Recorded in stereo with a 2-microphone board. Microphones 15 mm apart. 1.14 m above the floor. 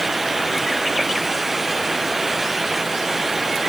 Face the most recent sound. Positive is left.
No sound to turn to.